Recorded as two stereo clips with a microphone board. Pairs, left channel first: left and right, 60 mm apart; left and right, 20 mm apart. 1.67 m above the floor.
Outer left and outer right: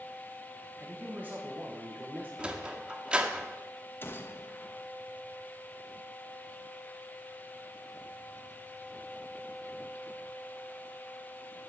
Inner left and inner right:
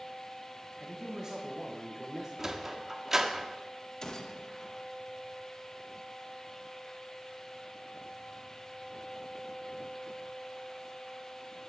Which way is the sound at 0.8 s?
25° right (ahead or behind).